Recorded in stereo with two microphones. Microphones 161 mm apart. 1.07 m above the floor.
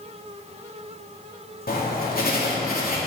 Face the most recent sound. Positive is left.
turn(degrees=65)  # may be behind; listen again after turning